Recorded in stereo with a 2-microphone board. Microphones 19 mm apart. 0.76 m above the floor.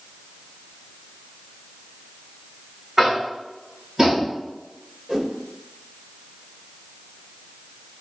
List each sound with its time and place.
3.0 s tapping: 30° right (ahead or behind), 3 m
5.1 s a whoosh: 40° right (ahead or behind), 2 m